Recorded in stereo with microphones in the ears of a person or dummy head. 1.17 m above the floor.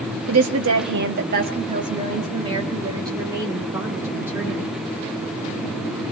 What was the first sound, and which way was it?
A woman speaking, 80° right.